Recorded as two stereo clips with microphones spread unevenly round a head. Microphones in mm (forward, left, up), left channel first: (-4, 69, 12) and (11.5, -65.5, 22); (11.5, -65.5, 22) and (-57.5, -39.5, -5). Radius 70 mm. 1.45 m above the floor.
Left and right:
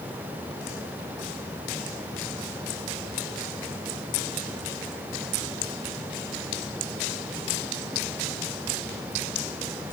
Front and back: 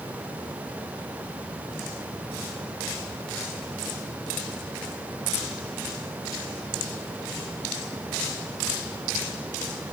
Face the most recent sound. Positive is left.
No sound to turn to.